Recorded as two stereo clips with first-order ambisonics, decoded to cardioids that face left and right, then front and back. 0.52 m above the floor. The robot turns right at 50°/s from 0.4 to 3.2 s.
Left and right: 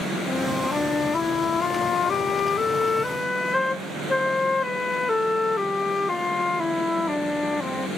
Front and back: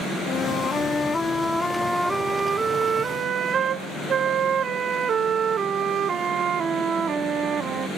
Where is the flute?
20° left, 0.5 m; by 7.9 s 160° left, 0.5 m.